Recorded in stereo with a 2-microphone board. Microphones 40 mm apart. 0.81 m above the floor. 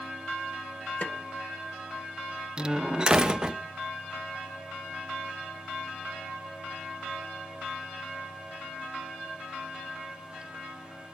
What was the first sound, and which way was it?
A snare drum, 40° left (ahead or behind).